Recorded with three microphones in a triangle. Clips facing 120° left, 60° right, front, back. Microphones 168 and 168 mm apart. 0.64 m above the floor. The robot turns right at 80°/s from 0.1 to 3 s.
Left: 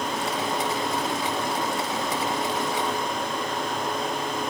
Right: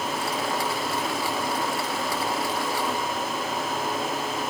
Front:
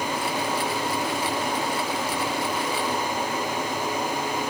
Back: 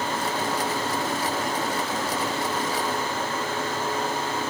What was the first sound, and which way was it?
Only background noise.